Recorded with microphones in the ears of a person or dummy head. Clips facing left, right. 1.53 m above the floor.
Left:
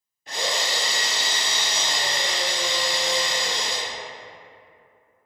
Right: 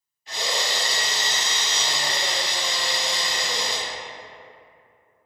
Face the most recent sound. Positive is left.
turn(degrees=45)  # may be behind; listen again after turning